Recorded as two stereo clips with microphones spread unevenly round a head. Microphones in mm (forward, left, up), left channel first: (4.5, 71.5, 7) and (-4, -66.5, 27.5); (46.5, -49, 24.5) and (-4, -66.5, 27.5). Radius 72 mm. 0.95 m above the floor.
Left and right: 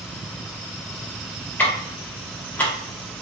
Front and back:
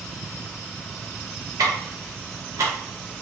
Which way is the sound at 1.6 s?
170° left.